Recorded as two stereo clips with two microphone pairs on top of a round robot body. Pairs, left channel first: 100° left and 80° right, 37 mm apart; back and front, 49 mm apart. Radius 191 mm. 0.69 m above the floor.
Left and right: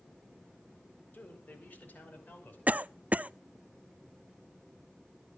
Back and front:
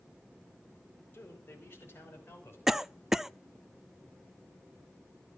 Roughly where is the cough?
Right.